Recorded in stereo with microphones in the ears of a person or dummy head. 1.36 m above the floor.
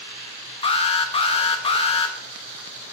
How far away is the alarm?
About 1.0 m.